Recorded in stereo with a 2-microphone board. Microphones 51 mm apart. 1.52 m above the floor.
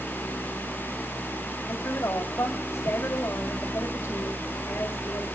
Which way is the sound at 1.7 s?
65° left (ahead or behind).